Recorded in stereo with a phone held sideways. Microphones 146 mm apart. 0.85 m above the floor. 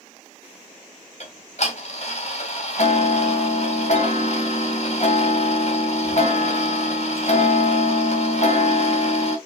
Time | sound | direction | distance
1.2 | ticking | 50° left (ahead or behind) | 3 m